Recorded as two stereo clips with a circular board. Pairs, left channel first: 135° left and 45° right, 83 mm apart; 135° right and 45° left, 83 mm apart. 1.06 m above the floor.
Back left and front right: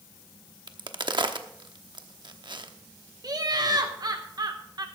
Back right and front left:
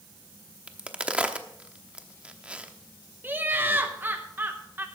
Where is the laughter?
15° right, 0.9 m.